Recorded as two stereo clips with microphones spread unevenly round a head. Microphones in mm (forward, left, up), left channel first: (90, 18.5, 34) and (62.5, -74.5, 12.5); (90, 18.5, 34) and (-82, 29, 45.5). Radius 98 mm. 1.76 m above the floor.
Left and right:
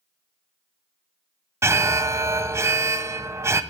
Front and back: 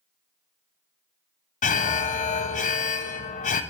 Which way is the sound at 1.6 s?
50° right.